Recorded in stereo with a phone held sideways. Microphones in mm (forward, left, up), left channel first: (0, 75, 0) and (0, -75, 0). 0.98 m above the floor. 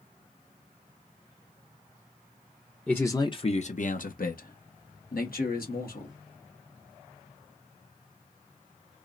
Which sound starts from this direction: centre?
A man speaking, at 2.9 s.